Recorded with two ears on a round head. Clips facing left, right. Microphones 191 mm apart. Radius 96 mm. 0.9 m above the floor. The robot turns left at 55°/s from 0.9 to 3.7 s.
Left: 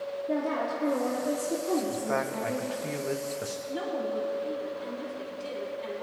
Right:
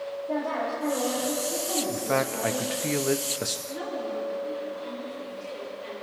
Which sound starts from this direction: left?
A woman speaking, at 3.7 s.